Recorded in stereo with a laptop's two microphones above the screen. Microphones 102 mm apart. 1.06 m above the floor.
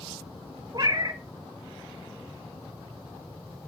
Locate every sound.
0.7 s a cat meowing: 40° right (ahead or behind), 1.2 m